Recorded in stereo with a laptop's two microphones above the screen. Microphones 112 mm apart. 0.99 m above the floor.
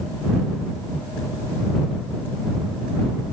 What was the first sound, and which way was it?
Only background noise.